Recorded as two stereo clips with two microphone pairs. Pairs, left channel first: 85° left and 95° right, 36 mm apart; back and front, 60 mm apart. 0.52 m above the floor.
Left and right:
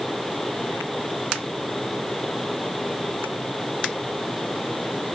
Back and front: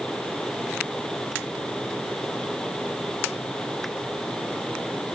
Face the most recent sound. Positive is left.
No sound to turn to.